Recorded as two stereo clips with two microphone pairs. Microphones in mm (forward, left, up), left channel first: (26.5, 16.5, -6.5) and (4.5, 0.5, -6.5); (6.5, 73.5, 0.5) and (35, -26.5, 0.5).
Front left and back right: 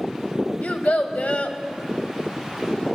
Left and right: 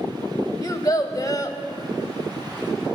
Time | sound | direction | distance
0.6 | a child speaking | 55° left | 1.2 m